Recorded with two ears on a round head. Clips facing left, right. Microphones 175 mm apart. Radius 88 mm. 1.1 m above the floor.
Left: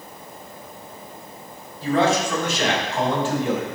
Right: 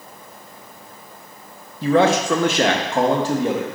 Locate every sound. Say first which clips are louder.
1.8 s a man speaking: right 4 dB; 50° right (ahead or behind), 1.0 m; by 3.7 s 25° right (ahead or behind), 1.2 m